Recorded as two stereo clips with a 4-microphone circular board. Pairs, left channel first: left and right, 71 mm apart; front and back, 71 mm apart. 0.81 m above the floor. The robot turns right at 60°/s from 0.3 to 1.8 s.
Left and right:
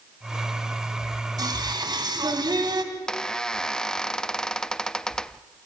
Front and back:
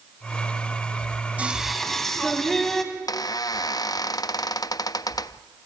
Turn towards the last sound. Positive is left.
turn(degrees=10)